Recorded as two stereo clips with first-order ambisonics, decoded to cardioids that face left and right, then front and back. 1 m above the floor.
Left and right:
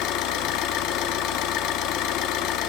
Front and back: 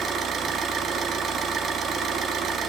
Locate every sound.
0.0 s an engine running: 120° left, 1.3 m